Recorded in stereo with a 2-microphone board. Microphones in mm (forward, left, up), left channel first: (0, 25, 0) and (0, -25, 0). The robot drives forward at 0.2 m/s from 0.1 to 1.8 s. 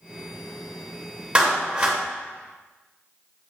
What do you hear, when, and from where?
1.4 s a clap: 25° right (ahead or behind), 1.0 m